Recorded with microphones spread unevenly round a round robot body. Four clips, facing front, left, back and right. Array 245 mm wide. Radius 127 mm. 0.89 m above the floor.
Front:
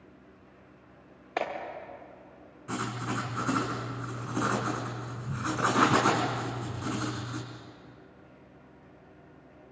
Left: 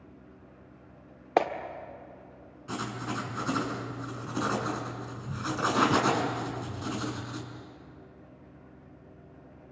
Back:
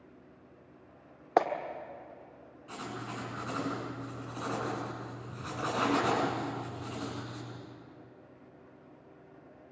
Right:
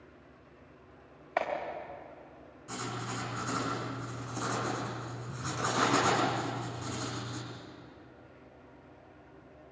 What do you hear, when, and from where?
1.4 s a clap: 120° left, 1.8 m
2.7 s writing: 20° left, 5.5 m